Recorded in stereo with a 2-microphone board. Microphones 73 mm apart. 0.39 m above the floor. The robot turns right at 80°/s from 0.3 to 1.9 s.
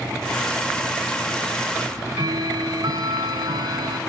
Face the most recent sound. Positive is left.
turn(degrees=-65)  # may be behind; listen again after turning